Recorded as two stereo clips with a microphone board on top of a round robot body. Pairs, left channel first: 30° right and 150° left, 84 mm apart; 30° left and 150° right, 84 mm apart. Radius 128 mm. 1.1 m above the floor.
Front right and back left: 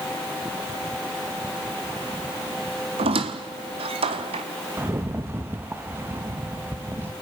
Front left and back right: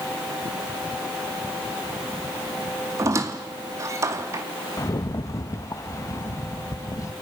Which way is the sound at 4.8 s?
85° left.